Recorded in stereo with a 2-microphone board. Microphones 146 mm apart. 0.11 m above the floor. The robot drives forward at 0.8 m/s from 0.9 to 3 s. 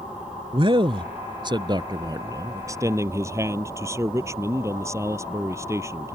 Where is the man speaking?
35° right (ahead or behind); by 6.2 s 20° right (ahead or behind).